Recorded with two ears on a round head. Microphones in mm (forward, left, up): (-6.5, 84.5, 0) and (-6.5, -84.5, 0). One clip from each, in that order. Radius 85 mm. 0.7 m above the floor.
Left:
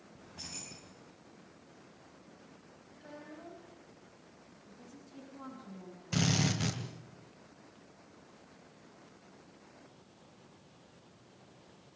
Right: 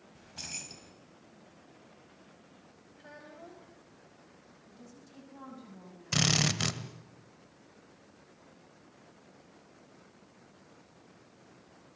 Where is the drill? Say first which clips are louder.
Right 5 dB; 45° right (ahead or behind), 1.6 m.